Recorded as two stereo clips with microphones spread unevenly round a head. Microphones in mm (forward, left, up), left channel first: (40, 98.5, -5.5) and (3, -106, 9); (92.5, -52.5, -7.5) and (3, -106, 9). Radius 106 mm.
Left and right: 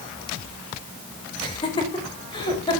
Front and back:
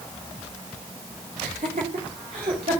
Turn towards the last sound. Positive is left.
turn(degrees=150)